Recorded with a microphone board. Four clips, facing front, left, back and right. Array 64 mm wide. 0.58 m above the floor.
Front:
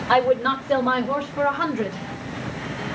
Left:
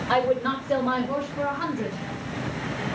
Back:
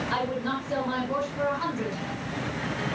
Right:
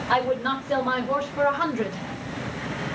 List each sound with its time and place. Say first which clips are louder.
0.1 s a woman speaking: even, front 13 dB; 10° left, 2.5 m; by 2.1 s 40° right, 2 m